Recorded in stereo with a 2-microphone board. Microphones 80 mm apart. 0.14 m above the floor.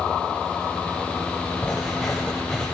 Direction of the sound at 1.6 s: 10° left (ahead or behind).